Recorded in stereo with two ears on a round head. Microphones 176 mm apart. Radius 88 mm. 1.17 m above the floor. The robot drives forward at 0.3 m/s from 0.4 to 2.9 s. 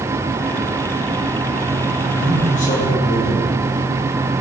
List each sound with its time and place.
2.2 s a man speaking: 40° left (ahead or behind), 4 m